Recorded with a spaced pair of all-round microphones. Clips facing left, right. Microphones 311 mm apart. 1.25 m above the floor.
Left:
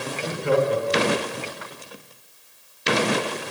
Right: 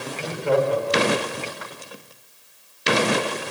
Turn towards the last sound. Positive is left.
turn(degrees=20)  # may be behind; listen again after turning